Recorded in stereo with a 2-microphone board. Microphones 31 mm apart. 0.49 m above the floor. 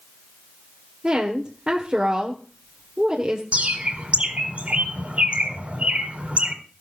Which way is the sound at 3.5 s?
45° right (ahead or behind).